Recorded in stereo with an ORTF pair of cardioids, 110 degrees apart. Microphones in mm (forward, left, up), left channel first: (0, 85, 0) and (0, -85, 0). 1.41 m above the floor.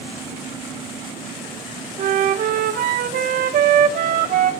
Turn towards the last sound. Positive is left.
turn(degrees=-60)